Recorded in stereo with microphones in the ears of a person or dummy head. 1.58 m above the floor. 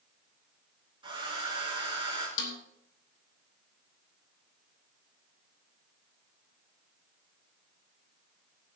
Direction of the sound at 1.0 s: 25° right (ahead or behind).